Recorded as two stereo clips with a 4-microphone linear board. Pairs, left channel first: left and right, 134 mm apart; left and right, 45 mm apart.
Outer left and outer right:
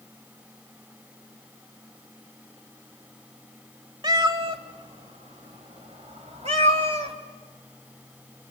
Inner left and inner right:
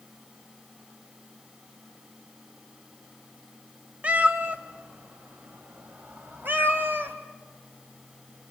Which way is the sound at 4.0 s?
35° right (ahead or behind).